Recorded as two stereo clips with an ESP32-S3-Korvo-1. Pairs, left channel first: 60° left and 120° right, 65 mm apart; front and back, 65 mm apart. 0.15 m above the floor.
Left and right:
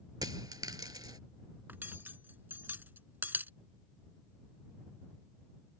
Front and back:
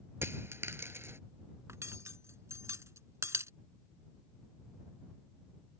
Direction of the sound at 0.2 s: 130° right.